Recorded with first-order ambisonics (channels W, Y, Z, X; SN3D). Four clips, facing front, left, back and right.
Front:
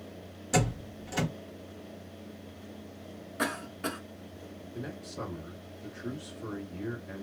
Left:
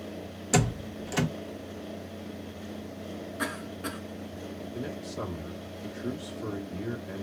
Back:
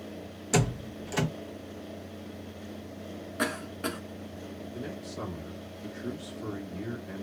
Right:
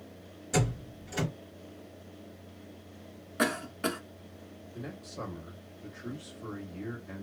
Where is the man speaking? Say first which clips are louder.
Left 4 dB, even; 120° left, 1.3 m.